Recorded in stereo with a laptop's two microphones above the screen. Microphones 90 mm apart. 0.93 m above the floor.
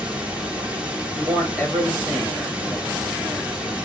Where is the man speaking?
5° right (ahead or behind), 1.7 m.